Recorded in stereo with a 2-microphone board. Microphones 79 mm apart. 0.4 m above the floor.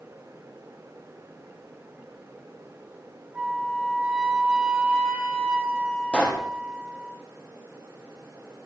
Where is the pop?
10° left (ahead or behind), 3.5 m.